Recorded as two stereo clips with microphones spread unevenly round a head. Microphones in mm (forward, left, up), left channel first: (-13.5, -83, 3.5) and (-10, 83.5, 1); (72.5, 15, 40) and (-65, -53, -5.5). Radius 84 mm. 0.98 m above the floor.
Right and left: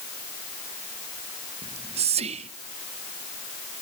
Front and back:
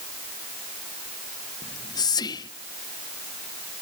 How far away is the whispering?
About 0.6 m.